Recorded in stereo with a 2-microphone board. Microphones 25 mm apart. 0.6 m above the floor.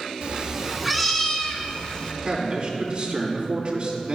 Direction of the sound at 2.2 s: 45° right (ahead or behind).